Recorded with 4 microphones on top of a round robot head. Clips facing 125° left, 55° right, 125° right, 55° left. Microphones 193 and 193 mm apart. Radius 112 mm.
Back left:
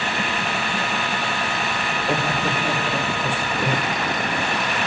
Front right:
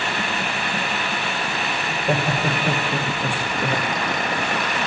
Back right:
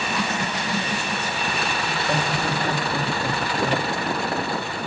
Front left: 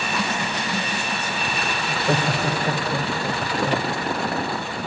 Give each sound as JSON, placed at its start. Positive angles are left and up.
{"t": 1.9, "sound": "laughter", "azimuth_deg": 20, "distance_m": 1.6}